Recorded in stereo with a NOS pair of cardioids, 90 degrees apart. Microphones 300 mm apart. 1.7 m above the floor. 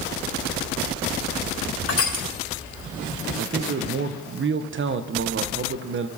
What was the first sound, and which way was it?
Crushing, 50° left.